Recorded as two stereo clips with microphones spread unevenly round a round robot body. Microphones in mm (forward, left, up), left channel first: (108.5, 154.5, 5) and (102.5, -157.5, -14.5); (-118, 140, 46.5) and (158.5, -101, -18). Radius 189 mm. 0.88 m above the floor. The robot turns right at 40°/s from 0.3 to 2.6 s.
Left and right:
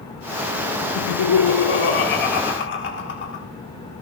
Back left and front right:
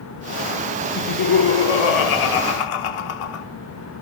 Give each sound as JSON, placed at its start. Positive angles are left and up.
{"t": 0.9, "sound": "laughter", "azimuth_deg": 85, "distance_m": 2.0}